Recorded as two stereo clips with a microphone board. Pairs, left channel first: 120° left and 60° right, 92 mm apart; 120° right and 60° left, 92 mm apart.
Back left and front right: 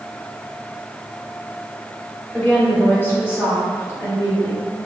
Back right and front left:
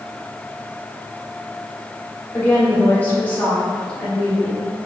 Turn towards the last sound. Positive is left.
turn(degrees=165)